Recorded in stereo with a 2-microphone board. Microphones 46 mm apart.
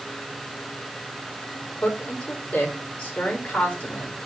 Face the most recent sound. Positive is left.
turn(degrees=30)  # may be behind; listen again after turning